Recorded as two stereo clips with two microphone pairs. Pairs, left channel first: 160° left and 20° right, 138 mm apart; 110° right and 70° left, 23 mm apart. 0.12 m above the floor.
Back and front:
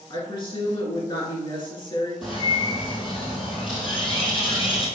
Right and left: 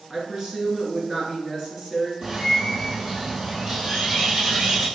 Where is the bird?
120° left, 2 m.